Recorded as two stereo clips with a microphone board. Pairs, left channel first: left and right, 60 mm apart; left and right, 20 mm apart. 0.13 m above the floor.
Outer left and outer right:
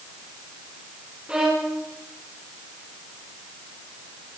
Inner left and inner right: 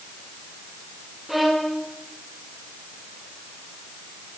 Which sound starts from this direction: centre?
A violin, at 1.3 s.